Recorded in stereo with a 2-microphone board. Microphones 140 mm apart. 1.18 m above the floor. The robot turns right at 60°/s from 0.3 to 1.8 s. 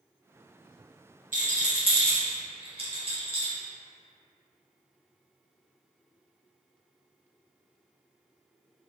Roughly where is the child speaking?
I don't hear a child speaking.